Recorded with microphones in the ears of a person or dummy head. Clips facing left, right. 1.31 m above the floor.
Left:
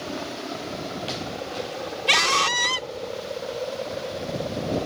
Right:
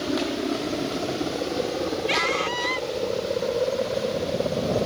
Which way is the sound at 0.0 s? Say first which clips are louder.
Right 7 dB; 40° right (ahead or behind).